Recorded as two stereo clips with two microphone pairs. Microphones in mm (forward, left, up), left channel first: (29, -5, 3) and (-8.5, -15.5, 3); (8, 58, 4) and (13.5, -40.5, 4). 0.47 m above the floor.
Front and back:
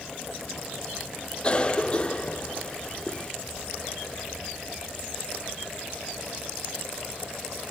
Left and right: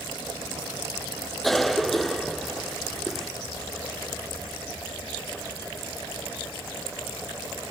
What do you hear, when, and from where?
1.4 s a cough: 10° left, 0.7 m